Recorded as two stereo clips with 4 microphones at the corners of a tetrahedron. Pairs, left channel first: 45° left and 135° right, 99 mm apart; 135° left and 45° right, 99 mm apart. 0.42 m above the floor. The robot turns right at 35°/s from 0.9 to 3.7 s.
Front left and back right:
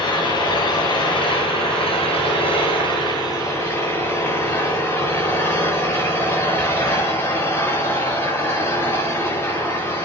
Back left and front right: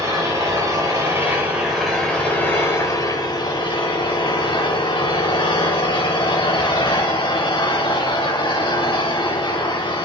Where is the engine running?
10° left, 8 m; by 10.1 s 105° left, 8 m.